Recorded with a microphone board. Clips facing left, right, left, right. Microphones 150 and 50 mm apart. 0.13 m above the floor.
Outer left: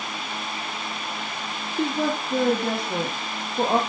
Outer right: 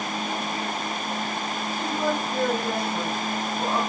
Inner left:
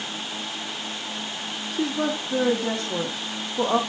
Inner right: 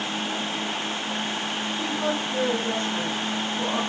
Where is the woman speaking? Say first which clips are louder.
Outer left 3 dB, inner left 3 dB; 75° left (ahead or behind), 4.5 m; by 3.8 s 70° left (ahead or behind), 4.5 m.